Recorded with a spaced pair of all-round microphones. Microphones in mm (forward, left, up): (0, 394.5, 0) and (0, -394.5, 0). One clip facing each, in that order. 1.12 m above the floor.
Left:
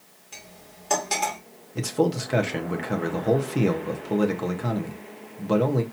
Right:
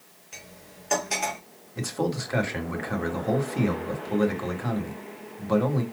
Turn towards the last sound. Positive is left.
turn(degrees=60)  # may be behind; listen again after turning